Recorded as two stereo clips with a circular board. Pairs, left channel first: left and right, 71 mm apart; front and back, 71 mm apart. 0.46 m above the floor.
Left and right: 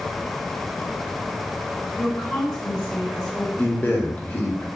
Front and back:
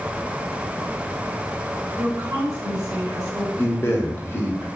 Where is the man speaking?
35° left, 0.9 m.